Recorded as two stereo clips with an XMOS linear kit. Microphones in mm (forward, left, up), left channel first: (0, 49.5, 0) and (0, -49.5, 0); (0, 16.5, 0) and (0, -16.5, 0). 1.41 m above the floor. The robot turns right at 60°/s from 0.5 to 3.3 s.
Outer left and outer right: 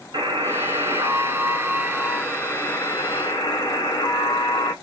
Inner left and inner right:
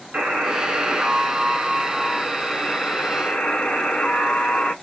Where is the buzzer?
85° right, 1.5 m; by 4.7 s 80° left, 1.5 m.